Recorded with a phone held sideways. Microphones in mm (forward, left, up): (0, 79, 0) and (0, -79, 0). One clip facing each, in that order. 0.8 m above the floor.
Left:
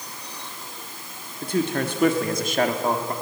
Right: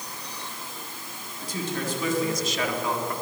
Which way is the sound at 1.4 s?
60° left (ahead or behind).